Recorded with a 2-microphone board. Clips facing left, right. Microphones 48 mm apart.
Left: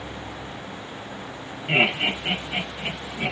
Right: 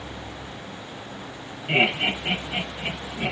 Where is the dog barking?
I don't hear a dog barking.